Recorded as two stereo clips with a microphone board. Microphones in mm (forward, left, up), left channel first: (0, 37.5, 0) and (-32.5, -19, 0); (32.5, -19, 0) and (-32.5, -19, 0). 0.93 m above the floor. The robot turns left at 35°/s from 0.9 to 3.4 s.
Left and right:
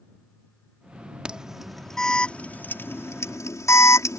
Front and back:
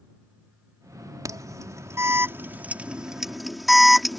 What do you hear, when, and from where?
1.2 s an alarm: 165° left; by 4.2 s 90° left